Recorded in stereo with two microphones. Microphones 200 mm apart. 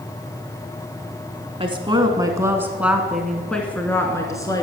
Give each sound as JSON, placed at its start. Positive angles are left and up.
{"t": 1.6, "sound": "a woman speaking", "side_deg": -25, "distance_m": 1.3}